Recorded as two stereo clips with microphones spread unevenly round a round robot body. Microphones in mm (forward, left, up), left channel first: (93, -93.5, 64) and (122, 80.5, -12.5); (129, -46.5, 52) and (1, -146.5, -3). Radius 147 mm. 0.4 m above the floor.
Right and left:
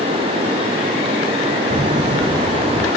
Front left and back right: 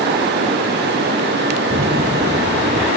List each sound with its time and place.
1.7 s footsteps: 150° left, 0.9 m